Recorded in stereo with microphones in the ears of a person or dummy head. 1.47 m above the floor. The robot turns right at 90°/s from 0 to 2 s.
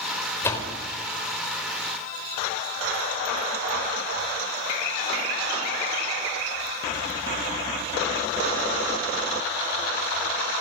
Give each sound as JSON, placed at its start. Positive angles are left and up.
{"t": 0.4, "sound": "a door slam", "side_deg": 15, "distance_m": 4.5}